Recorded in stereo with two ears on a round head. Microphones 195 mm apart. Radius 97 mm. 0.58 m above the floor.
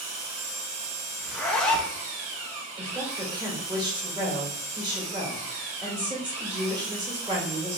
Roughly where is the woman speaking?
Centre.